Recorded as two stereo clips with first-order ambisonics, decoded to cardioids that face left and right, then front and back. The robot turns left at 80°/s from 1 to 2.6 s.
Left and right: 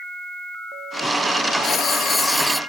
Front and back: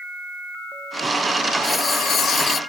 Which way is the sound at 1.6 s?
70° left.